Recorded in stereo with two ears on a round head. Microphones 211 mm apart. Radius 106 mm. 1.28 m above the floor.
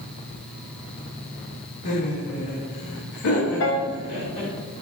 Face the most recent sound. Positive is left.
turn(degrees=55)  # may be behind; listen again after turning